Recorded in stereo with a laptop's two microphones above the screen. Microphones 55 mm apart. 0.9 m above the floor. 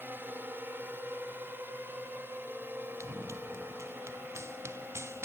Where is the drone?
35° right (ahead or behind); by 5.3 s 40° right (ahead or behind).